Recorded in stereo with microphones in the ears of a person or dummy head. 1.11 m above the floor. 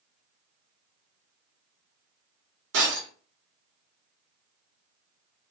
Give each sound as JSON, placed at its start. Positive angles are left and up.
{"t": 2.7, "sound": "breaking glass", "side_deg": -70, "distance_m": 1.1}